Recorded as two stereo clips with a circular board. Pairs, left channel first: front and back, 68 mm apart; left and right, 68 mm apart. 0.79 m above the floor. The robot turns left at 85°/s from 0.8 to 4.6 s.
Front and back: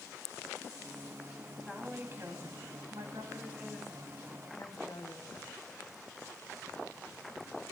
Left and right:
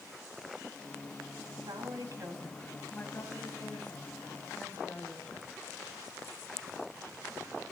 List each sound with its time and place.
1.6 s a woman speaking: 80° right, 5.5 m; by 5.5 s 20° left, 5.5 m